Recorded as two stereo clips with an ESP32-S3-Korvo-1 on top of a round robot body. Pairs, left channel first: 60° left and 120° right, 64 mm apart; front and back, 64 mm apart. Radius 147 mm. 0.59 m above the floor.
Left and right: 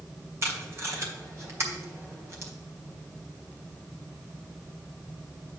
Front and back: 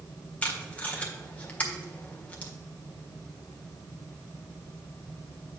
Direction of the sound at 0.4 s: 70° right.